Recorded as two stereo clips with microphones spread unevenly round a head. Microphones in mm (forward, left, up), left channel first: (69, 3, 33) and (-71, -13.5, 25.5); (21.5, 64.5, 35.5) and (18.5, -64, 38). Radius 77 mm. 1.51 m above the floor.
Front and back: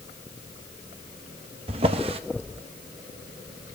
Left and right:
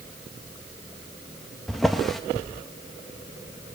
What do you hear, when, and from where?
1.7 s a drawer: straight behind, 0.8 m